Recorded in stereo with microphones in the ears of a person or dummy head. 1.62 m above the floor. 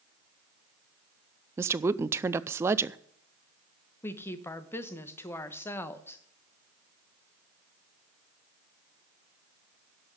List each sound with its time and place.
1.6 s a woman speaking: 15° right (ahead or behind), 0.5 m
4.0 s a woman speaking: 20° left (ahead or behind), 1.0 m